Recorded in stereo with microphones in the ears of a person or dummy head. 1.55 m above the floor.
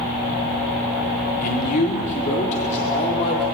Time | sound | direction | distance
1.4 | a man speaking | 45° left (ahead or behind) | 4 m